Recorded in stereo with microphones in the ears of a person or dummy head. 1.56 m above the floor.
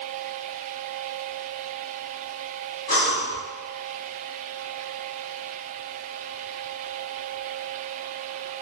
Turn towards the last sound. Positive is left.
turn(degrees=20)  # may be behind; listen again after turning